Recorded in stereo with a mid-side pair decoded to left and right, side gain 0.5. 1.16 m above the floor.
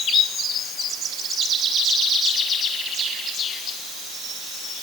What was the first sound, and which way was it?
Only background noise.